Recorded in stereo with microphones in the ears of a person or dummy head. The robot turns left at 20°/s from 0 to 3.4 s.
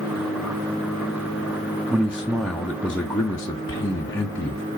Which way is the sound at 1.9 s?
170° right.